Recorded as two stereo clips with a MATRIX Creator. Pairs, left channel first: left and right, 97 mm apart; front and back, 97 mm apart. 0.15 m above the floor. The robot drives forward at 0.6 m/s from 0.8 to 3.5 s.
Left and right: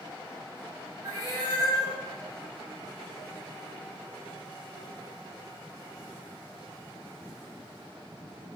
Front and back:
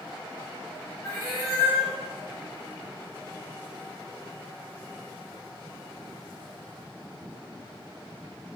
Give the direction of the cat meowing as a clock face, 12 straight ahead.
2 o'clock.